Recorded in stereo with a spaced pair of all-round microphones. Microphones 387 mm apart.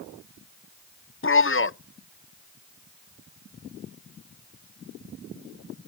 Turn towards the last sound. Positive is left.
turn(degrees=35)  # may be behind; listen again after turning